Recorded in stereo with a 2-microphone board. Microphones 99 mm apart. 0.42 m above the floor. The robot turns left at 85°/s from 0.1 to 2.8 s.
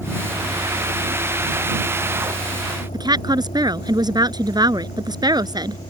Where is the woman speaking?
45° right (ahead or behind).